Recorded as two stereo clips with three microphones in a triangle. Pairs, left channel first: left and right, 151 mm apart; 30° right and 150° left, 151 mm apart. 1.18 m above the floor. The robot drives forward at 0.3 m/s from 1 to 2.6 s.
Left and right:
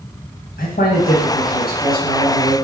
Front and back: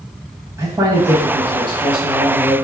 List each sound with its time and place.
0.6 s a man speaking: 80° left, 1.2 m; by 2.5 s 105° left, 1.2 m